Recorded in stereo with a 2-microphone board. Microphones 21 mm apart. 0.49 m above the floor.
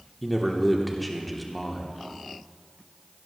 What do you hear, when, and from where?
0.2 s a man speaking: 5° left (ahead or behind), 1.2 m